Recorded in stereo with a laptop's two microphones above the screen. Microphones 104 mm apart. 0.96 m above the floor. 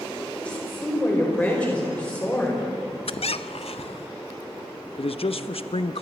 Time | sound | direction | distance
0.4 | a woman speaking | 15° left (ahead or behind) | 5 m
3.1 | a squeak | 70° left (ahead or behind) | 0.6 m
5.0 | a man speaking | 65° left (ahead or behind) | 0.9 m